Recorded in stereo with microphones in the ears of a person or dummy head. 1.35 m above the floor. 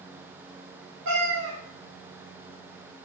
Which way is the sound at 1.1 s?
60° right (ahead or behind).